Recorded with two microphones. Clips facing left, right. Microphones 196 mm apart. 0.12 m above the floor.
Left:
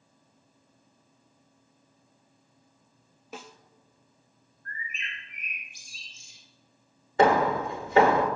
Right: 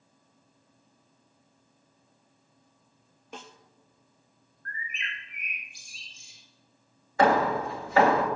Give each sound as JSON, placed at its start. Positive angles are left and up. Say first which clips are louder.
{"t": 3.3, "sound": "a snare drum", "louder": "left 1 dB", "side_deg": 5, "distance_m": 0.6}
{"t": 4.7, "sound": "a bird", "louder": "right 1 dB", "side_deg": -55, "distance_m": 2.5}
{"t": 7.2, "sound": "hammering", "louder": "left 1 dB", "side_deg": 25, "distance_m": 1.5}